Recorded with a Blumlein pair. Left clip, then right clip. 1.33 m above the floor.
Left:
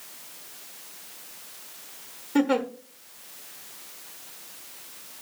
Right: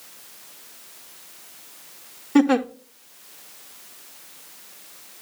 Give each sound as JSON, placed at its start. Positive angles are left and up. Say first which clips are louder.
{"t": 2.4, "sound": "a giggle", "louder": "right 5 dB", "azimuth_deg": -20, "distance_m": 0.6}